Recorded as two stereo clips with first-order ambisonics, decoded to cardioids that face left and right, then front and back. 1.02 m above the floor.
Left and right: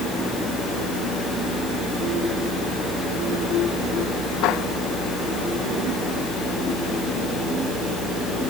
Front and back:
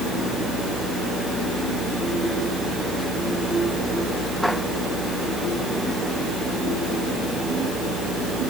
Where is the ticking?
I don't hear ticking.